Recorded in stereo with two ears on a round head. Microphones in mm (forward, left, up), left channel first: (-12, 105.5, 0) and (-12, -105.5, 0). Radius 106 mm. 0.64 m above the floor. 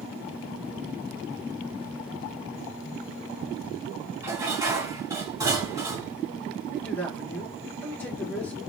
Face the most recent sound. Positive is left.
turn(degrees=10)  # may be behind; listen again after turning